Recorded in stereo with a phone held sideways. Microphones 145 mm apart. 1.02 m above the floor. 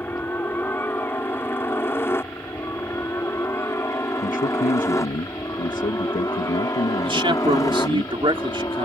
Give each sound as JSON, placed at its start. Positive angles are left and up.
{"t": 0.0, "sound": "a helicopter", "side_deg": 15}
{"t": 4.2, "sound": "a man speaking", "side_deg": 65}
{"t": 7.0, "sound": "a man speaking", "side_deg": -35}